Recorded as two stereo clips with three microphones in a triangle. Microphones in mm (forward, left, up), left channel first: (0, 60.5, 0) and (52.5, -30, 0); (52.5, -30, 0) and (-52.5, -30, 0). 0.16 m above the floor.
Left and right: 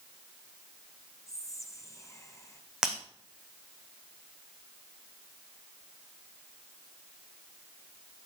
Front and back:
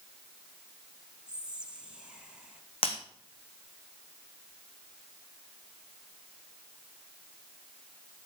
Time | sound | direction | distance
1.3 | whispering | 105° left | 1.9 m
2.8 | breaking glass | 25° left | 2.5 m